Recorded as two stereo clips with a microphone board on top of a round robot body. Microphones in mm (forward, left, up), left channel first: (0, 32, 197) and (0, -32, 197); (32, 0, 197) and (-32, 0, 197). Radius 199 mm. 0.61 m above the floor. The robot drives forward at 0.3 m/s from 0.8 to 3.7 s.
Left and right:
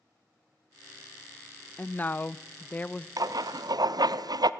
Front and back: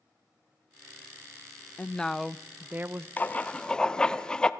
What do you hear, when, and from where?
1.8 s a woman speaking: 45° left, 0.5 m; by 3.1 s 150° left, 0.6 m
3.2 s writing: 65° right, 0.8 m; by 4.5 s 80° right, 0.7 m